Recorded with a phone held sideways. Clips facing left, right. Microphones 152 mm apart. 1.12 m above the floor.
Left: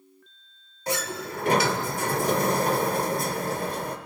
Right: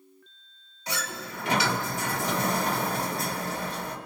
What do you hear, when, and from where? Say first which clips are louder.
0.9 s a sliding door: left 6 dB; 50° left (ahead or behind), 1.9 m